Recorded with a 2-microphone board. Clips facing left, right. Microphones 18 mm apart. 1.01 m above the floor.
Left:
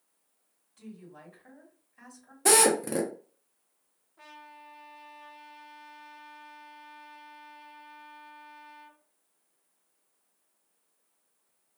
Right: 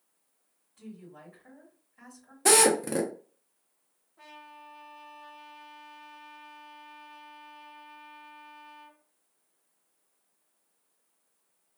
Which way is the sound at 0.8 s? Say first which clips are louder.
Right 1 dB; 30° left (ahead or behind).